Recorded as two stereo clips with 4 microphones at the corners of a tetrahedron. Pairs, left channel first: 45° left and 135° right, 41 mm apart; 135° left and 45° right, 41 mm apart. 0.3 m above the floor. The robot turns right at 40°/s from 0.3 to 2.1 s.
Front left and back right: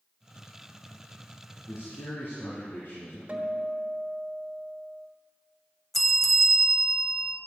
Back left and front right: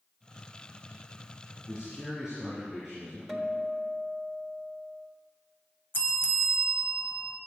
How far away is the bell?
About 0.8 m.